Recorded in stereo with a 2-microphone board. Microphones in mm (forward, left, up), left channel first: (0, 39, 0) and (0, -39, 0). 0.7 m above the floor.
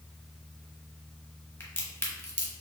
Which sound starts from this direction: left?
A crack, at 1.6 s.